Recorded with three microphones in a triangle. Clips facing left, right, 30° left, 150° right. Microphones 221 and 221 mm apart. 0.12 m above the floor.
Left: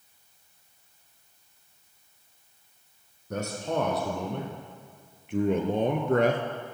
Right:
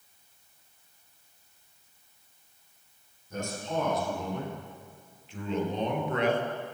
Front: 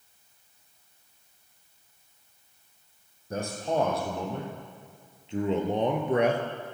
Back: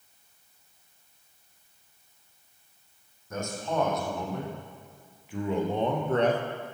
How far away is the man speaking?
About 4.5 m.